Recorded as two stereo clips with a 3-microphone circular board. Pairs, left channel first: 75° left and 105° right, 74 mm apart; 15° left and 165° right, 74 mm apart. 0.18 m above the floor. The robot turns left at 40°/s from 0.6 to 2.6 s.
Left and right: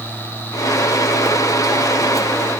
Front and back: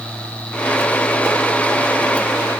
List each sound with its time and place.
Only background noise.